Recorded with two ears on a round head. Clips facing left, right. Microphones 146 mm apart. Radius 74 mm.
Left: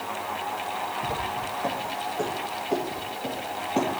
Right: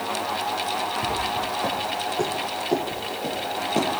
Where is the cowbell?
I don't hear a cowbell.